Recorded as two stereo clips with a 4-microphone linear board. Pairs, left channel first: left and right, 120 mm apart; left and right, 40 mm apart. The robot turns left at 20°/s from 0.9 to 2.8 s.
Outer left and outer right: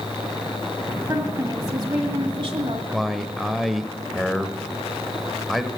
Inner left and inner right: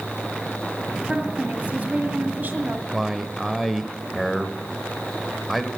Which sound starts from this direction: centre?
A man speaking, at 2.9 s.